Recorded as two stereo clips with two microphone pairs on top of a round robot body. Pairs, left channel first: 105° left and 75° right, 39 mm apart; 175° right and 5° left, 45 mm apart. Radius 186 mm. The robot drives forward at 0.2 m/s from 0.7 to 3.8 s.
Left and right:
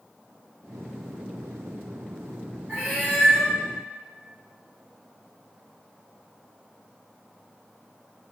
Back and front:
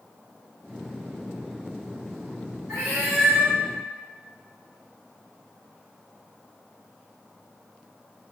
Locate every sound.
2.7 s a cat meowing: 90° right, 1.2 m; by 3.5 s 95° right, 1.2 m